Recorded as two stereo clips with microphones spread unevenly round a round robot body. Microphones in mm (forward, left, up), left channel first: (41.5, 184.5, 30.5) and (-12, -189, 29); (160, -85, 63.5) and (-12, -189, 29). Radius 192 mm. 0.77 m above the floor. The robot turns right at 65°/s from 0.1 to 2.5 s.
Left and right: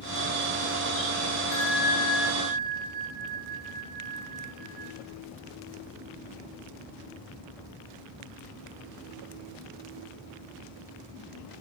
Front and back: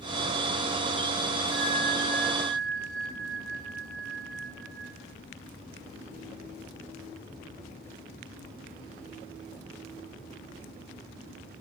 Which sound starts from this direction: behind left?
A bell, at 1.5 s.